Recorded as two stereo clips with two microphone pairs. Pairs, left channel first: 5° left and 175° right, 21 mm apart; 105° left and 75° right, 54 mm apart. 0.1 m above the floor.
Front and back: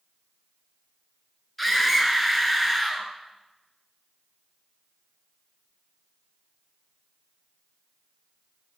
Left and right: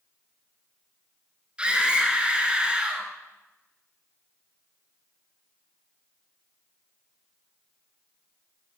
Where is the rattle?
No rattle in this recording.